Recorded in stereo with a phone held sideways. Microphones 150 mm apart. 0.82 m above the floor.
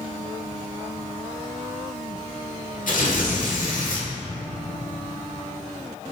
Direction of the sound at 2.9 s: 70° left (ahead or behind).